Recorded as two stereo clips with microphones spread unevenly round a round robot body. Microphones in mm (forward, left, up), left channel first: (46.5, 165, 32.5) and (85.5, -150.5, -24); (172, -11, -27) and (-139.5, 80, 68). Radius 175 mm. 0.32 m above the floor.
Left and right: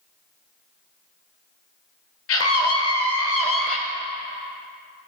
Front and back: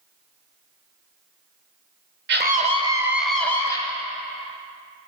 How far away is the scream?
About 1.3 m.